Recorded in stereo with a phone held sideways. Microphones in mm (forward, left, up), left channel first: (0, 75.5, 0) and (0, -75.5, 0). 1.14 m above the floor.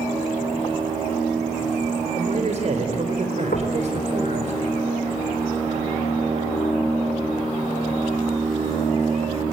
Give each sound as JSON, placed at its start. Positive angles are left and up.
{"t": 2.1, "sound": "a man speaking", "side_deg": -55, "distance_m": 4.0}
{"t": 3.5, "sound": "knocking", "side_deg": 75, "distance_m": 3.5}